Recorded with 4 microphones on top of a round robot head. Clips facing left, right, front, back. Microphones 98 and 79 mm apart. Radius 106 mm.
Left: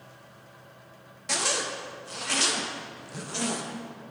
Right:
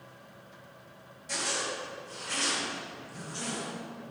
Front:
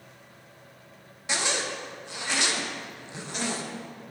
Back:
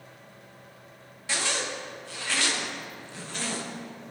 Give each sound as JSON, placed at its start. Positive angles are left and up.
{"t": 1.3, "sound": "a zipper", "azimuth_deg": 70, "distance_m": 1.0}